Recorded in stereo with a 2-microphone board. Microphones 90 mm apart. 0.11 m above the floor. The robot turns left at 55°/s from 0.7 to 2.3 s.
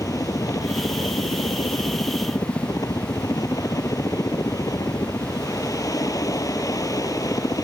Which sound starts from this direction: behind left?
A helicopter, at 0.0 s.